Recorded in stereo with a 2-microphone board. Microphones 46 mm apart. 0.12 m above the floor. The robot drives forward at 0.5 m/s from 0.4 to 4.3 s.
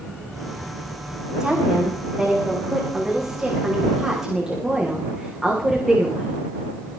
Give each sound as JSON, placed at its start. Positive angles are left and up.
{"t": 1.4, "sound": "a woman speaking", "side_deg": -10, "distance_m": 8.0}